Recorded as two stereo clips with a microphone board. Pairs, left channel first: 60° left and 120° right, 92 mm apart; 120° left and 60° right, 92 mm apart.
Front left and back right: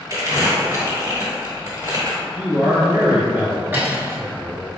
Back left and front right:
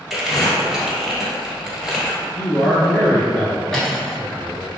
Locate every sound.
0.1 s crumpling: 150° right, 1.3 m
2.4 s a man speaking: 165° right, 1.6 m
3.7 s cutlery clinking: 160° right, 0.9 m